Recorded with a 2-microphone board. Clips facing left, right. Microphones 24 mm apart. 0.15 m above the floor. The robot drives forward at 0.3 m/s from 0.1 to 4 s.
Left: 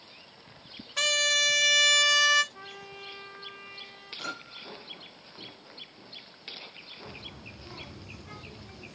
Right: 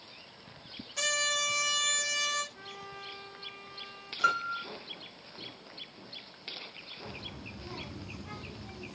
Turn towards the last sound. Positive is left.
turn(degrees=-15)  # may be behind; listen again after turning